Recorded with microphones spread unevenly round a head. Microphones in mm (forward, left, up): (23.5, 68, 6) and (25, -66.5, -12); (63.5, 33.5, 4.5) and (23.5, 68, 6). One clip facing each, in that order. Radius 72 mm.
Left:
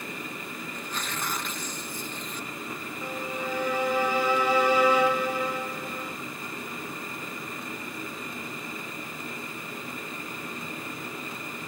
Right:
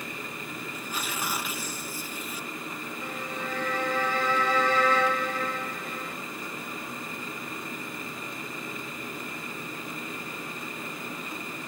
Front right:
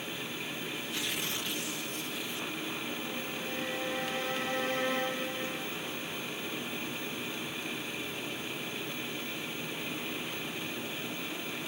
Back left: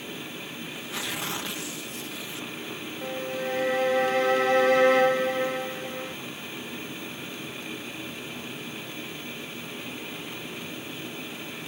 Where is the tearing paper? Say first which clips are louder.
Right 1 dB, back left 5 dB; 175° right.